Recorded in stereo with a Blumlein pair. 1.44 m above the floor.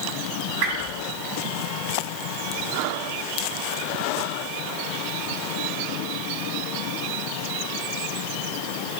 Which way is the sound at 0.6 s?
45° right.